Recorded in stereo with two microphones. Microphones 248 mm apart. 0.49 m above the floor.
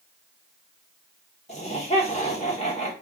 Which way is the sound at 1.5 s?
25° left (ahead or behind).